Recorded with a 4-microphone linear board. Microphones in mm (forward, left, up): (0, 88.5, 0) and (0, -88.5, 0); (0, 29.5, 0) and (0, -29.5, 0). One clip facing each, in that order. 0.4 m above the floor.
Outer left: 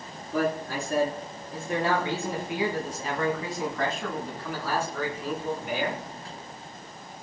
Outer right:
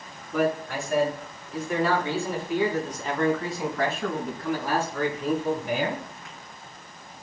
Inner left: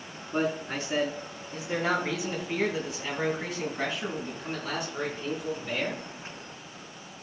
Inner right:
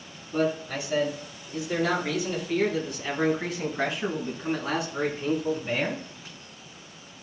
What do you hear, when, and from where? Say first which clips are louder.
0.3 s a man speaking: outer right 2 dB, inner right 2 dB; 40° left (ahead or behind), 4.5 m; by 6.1 s 35° right (ahead or behind), 4 m